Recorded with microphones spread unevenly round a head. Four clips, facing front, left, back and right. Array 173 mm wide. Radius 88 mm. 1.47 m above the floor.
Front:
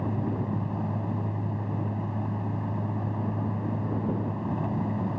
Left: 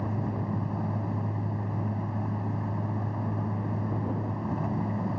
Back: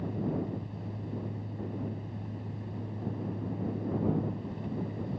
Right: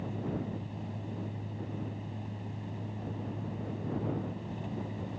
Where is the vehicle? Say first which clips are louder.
Left 4 dB, front 3 dB; 35° left.